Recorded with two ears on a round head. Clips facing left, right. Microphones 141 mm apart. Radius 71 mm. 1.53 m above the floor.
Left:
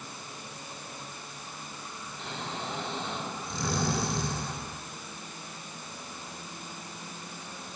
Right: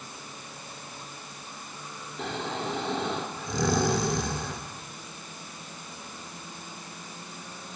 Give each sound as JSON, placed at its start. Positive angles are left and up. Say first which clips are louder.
{"t": 2.2, "sound": "snoring", "louder": "right 6 dB", "side_deg": -60, "distance_m": 3.5}